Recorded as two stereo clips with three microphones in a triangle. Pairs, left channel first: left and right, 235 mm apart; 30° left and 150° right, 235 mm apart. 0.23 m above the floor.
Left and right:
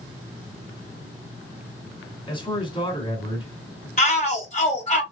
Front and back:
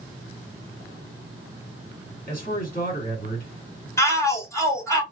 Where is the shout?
95° left, 1.4 m.